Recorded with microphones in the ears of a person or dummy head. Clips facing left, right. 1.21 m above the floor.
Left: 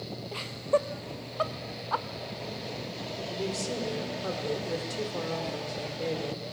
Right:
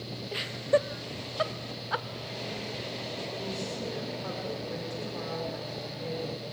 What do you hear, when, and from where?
0.3 s laughter: 15° right (ahead or behind), 0.5 m
3.3 s a woman speaking: 55° left (ahead or behind), 4.5 m